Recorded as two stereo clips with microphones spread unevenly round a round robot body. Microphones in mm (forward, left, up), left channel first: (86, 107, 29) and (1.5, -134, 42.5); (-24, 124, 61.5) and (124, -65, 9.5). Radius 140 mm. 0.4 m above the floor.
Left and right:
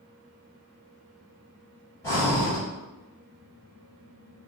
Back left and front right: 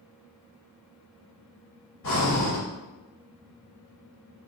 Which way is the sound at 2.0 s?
145° left.